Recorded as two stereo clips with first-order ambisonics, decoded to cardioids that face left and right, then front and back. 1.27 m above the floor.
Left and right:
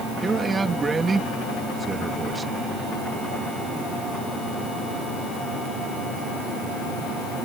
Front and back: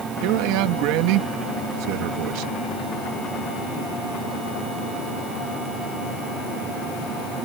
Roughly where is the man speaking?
Behind.